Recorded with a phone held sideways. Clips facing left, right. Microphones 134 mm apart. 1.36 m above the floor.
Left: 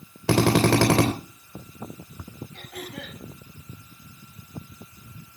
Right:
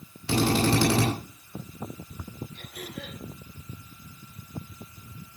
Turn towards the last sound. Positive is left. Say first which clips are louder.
# left 2 dB
turn(degrees=75)  # may be behind; listen again after turning